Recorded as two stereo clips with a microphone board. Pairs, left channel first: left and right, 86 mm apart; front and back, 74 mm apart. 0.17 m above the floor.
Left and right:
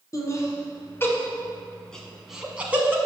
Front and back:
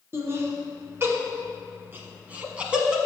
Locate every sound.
0.1 s laughter: 135° left, 2 m; by 3.0 s 115° right, 1.3 m